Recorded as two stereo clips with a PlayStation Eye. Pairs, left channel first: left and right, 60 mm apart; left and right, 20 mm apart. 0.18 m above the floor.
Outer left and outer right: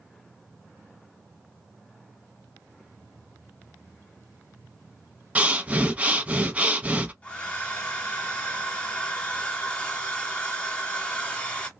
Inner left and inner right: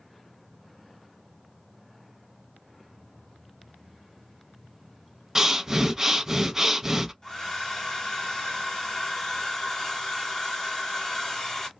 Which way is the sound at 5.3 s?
25° right (ahead or behind).